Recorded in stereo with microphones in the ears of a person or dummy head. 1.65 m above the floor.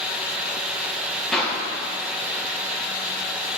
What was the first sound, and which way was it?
A clap, 15° left (ahead or behind).